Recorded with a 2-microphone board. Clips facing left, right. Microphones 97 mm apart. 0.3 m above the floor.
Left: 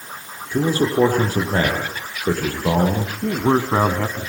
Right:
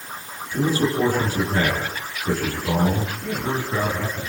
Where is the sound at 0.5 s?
50° left (ahead or behind), 8.5 m.